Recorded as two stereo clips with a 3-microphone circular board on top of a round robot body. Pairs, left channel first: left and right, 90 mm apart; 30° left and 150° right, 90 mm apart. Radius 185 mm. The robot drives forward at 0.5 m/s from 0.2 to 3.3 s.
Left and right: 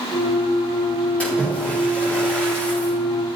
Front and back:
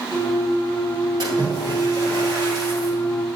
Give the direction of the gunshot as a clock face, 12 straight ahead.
No gunshot in this recording.